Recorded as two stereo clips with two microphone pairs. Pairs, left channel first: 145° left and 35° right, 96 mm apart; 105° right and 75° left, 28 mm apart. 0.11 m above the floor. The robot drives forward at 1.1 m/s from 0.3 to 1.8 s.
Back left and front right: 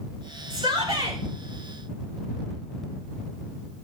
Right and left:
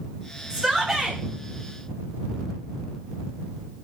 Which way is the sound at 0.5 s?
5° right.